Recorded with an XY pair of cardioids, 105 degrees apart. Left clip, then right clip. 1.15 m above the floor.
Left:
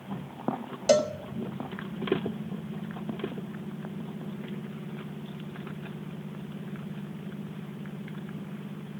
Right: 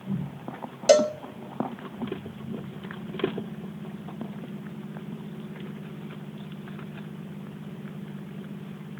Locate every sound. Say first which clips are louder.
0.9 s a cowbell: right 4 dB; 30° right, 0.6 m